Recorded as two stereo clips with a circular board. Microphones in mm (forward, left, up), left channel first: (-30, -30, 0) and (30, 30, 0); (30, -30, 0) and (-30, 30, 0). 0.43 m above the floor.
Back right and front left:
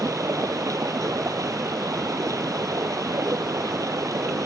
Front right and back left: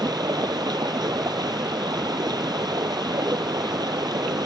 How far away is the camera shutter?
No camera shutter in this recording.